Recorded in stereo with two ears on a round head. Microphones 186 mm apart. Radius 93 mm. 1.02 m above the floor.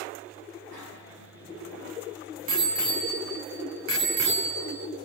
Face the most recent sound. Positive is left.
turn(degrees=-55)  # may be behind; listen again after turning